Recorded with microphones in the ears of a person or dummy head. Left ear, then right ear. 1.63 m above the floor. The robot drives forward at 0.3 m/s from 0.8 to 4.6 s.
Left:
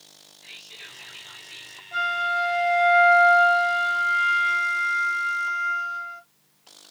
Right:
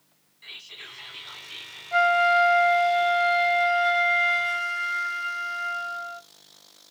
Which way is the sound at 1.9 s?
30° right (ahead or behind).